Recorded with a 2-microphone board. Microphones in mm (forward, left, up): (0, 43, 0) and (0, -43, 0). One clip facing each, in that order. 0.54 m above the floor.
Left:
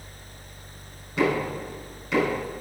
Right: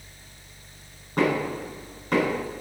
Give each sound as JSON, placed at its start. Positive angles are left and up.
{"t": 1.2, "sound": "knocking", "side_deg": -45, "distance_m": 5.0}